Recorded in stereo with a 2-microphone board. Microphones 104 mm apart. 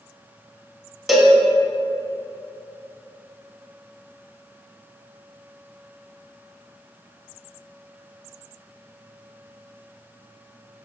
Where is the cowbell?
Centre (ahead or behind), 0.5 m.